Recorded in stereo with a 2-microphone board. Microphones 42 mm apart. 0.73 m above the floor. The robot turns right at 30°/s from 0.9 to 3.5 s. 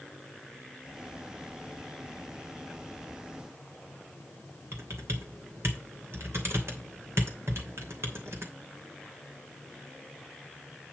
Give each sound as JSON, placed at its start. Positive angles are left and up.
{"t": 4.7, "sound": "typing on a keyboard", "side_deg": -75, "distance_m": 2.5}